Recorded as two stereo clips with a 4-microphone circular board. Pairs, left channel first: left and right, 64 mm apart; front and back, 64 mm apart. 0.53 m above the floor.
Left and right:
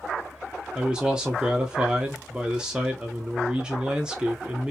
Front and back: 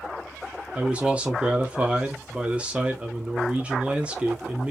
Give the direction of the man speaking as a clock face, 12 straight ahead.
5 o'clock.